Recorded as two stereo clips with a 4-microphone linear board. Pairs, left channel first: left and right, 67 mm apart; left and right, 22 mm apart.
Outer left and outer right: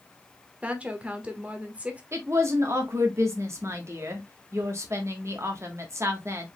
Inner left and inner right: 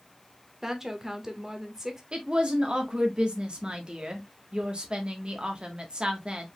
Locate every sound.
0.6 s a woman speaking: 20° right (ahead or behind), 1.3 m
2.1 s a woman speaking: 45° right (ahead or behind), 1.2 m